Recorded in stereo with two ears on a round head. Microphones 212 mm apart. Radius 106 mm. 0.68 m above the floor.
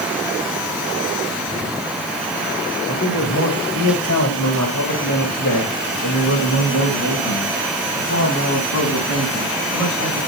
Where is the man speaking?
75° left (ahead or behind), 3.5 m; by 10.2 s 65° left (ahead or behind), 7.5 m.